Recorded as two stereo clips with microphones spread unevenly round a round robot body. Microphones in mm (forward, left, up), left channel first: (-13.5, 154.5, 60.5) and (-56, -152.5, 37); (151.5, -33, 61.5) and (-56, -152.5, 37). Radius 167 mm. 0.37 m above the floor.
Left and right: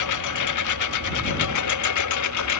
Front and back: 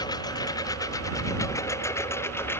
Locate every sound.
0.0 s a lawn mower: 110° left; by 2.6 s 115° left